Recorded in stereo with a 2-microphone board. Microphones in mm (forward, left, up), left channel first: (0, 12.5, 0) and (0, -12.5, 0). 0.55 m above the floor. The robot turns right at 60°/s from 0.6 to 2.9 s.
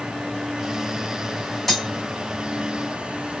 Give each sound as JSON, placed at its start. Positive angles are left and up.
{"t": 1.7, "sound": "cutlery clinking", "side_deg": 10, "distance_m": 2.0}